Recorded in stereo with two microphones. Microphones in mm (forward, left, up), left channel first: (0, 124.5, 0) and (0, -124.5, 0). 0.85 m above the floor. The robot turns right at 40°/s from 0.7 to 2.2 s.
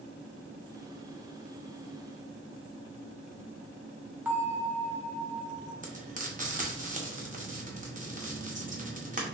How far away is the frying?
About 0.8 m.